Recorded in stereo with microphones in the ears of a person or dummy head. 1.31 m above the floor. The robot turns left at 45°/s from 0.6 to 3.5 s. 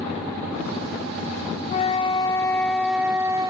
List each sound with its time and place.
1.7 s a flute: 50° left, 1.7 m; by 3.5 s 35° right, 1.7 m